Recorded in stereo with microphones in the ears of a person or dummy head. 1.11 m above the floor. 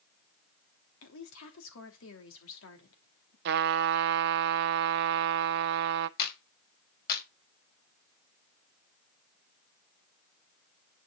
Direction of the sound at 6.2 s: 55° left (ahead or behind).